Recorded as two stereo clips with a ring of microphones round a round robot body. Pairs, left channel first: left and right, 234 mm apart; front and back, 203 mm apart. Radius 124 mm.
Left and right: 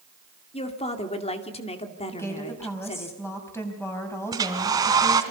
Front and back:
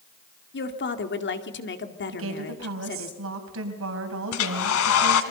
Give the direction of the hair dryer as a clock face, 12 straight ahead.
1 o'clock.